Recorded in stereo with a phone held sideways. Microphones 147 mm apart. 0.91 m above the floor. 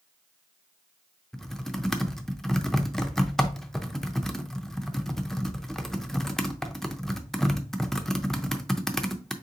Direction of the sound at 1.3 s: 5° left (ahead or behind).